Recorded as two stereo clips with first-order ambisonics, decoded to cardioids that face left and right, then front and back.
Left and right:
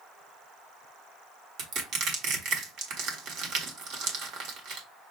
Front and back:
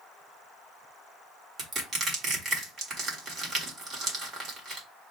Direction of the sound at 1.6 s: 120° right.